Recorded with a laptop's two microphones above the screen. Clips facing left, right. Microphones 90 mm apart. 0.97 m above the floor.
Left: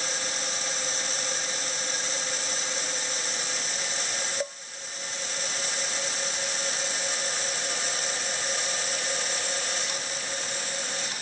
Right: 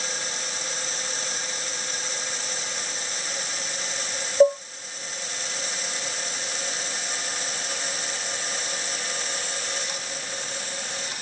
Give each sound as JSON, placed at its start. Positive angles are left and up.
{"t": 4.4, "sound": "dishes clattering", "side_deg": -80}